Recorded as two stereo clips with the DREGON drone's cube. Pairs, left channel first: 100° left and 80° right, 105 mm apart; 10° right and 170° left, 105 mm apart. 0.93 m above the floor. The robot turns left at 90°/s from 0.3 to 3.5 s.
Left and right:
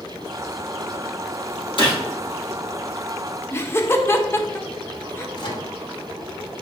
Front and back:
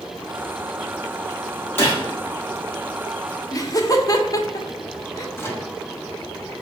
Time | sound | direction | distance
1.8 | a gunshot | 60° left | 1.1 m
3.5 | laughter | 35° left | 0.7 m
5.4 | a microwave | 55° left | 0.9 m